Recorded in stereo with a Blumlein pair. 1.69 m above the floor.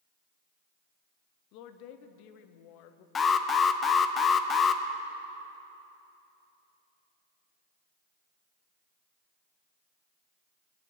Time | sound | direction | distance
1.5 | a woman speaking | 45° left | 1.0 m
3.1 | an alarm | 20° left | 0.8 m